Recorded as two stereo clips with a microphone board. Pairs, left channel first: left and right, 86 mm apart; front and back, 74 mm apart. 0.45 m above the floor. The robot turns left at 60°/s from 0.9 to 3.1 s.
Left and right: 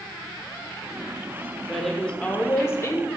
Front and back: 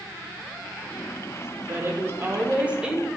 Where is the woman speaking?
175° right, 0.9 m; by 3.1 s 100° left, 0.9 m.